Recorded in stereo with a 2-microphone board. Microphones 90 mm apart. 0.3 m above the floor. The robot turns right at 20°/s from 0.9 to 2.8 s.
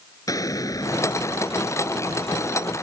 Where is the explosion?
40° left; by 2.7 s 80° left.